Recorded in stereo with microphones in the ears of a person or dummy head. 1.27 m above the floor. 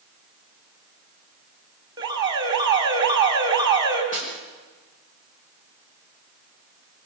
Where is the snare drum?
40° left (ahead or behind), 5 m.